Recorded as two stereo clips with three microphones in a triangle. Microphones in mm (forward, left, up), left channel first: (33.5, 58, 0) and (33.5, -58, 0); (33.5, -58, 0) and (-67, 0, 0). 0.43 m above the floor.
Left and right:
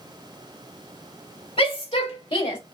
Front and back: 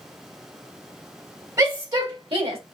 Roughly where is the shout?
Left.